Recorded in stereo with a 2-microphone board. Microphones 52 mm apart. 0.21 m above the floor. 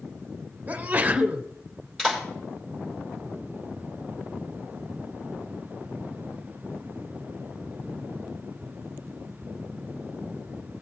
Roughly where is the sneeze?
Right.